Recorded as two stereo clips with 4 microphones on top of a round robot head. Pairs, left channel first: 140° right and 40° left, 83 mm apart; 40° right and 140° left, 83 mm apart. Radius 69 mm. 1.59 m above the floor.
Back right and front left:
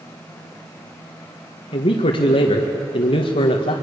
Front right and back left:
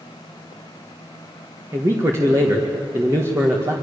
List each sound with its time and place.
1.7 s a man speaking: 160° right, 1.9 m